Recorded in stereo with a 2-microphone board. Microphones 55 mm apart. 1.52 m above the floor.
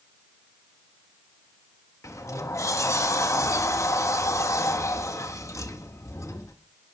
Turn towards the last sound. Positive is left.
turn(degrees=60)  # may be behind; listen again after turning